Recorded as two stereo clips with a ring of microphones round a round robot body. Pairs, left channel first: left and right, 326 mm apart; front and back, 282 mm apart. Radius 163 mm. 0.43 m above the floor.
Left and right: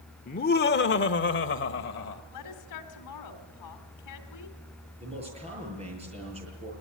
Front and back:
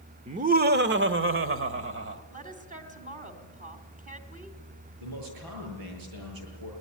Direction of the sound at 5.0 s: 160° right.